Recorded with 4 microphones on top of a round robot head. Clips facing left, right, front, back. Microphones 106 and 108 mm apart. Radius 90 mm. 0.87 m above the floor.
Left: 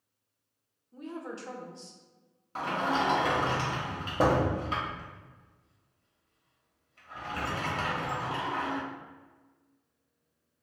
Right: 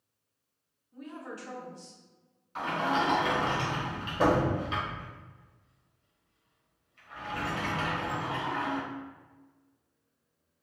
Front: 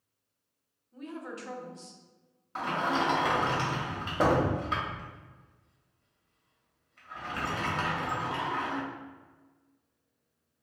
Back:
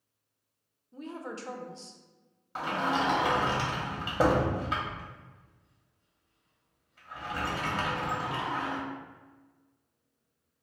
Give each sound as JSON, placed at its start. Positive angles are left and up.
{"t": 0.9, "sound": "a woman speaking", "azimuth_deg": 140, "distance_m": 0.6}
{"t": 2.5, "sound": "a sliding door", "azimuth_deg": 100, "distance_m": 1.1}